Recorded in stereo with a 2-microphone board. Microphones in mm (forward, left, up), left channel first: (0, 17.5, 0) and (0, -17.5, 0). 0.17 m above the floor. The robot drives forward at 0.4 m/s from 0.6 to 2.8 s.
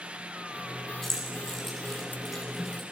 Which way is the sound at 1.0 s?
10° left (ahead or behind).